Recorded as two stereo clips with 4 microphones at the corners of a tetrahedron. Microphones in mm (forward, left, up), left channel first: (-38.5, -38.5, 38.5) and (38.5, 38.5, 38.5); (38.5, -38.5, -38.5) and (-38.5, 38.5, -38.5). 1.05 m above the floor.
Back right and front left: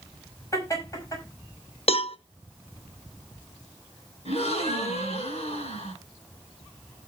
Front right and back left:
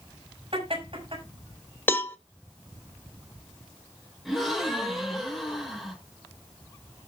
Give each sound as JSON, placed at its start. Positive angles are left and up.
{"t": 0.5, "sound": "laughter", "azimuth_deg": 165, "distance_m": 6.0}
{"t": 1.9, "sound": "a cowbell", "azimuth_deg": -115, "distance_m": 0.8}
{"t": 4.2, "sound": "a gasp", "azimuth_deg": -135, "distance_m": 4.5}